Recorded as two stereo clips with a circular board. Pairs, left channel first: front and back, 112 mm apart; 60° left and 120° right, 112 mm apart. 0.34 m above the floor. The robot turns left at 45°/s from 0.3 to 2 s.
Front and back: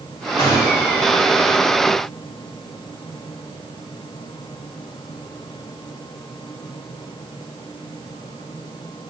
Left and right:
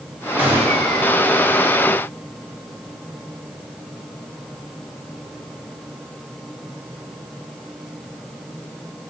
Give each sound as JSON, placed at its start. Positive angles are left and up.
{"t": 0.4, "sound": "a gunshot", "azimuth_deg": -45, "distance_m": 1.0}